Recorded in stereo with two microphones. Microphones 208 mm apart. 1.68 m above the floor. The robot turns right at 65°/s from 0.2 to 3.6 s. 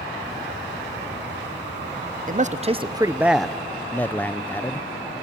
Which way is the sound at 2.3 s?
75° right.